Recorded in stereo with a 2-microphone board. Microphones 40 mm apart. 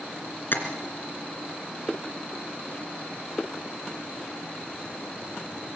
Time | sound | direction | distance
0.5 | tapping | 55° left (ahead or behind) | 2.5 m